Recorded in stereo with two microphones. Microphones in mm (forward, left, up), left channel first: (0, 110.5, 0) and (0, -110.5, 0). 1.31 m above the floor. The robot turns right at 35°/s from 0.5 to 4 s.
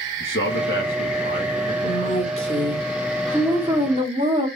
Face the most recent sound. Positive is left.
turn(degrees=-150)